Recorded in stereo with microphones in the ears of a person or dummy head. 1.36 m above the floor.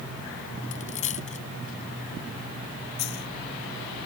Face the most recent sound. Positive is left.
turn(degrees=60)  # may be behind; listen again after turning